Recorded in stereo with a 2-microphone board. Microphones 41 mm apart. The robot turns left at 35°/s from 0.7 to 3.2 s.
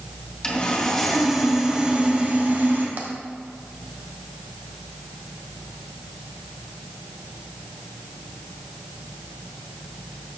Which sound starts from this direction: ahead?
Sawing, at 0.4 s.